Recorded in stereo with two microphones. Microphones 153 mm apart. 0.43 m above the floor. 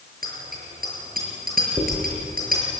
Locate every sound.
0.2 s a bicycle bell: 70° right (ahead or behind), 6.5 m
1.8 s a dropped coin: 25° right (ahead or behind), 6 m